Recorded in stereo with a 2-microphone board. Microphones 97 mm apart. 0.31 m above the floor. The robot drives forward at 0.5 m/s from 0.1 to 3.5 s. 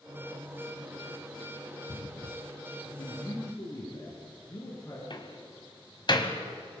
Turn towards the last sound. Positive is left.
turn(degrees=50)  # may be behind; listen again after turning